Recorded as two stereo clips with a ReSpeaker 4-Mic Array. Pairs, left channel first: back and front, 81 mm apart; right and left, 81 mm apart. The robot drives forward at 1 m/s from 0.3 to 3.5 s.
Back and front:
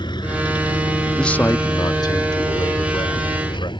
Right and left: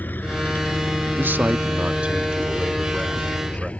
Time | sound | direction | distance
0.0 | an engine running | 155° right | ?
1.2 | a man speaking | 100° left | ?